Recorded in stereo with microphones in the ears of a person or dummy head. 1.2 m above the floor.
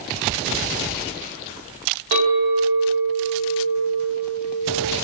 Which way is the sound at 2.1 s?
70° right (ahead or behind).